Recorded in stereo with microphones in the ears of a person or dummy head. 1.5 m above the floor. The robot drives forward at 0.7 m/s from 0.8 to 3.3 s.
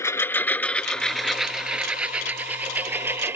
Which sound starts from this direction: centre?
A lawn mower, at 0.0 s.